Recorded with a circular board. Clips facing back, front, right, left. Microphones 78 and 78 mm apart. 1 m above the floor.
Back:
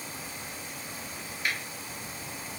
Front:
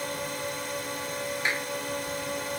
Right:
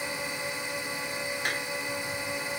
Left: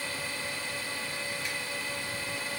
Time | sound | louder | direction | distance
0.0 | a drone | front 9 dB, right 3 dB | 20° right | ?
1.4 | a clap | front 2 dB, right 5 dB | 60° right | ?